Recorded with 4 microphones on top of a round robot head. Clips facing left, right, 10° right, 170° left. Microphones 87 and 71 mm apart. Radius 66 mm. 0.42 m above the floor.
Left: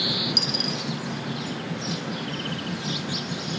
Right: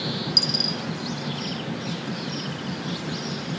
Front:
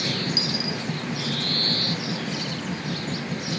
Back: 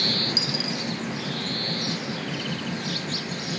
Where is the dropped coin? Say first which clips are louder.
Even, front 1 dB; 130° right, 0.8 m.